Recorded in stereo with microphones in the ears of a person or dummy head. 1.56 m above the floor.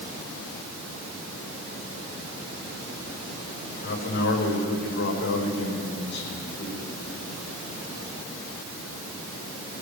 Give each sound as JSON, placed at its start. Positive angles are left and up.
{"t": 3.8, "sound": "a man speaking", "side_deg": 60, "distance_m": 5.0}